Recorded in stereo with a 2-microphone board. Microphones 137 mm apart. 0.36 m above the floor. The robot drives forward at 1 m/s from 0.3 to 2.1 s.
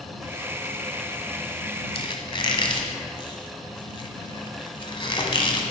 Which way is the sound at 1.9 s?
45° left (ahead or behind).